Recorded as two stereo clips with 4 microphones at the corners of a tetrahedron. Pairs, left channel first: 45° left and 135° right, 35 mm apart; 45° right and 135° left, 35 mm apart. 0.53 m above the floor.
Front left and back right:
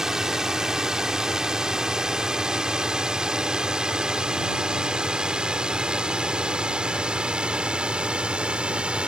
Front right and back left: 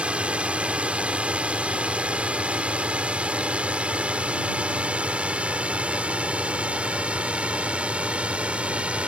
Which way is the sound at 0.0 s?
165° left.